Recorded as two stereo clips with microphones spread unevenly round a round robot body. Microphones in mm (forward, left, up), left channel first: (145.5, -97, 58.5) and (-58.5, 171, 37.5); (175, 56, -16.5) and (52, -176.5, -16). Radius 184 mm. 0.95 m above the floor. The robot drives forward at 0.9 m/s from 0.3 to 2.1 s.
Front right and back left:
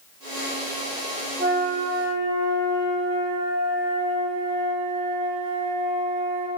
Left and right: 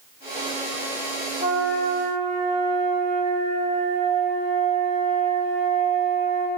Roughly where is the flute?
Behind.